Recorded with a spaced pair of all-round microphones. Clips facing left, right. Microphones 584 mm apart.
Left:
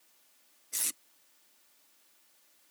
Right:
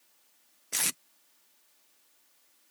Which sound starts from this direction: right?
Tape being pulled, at 0.7 s.